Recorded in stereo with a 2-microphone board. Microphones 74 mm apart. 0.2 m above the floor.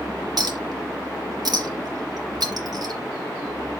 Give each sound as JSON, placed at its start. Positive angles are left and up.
{"t": 0.4, "sound": "a clink", "side_deg": -60, "distance_m": 2.0}